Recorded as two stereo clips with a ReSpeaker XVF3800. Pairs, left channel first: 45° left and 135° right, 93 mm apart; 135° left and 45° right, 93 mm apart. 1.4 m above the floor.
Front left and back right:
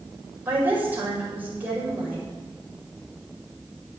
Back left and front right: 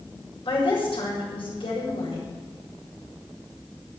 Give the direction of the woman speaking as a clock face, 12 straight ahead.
7 o'clock.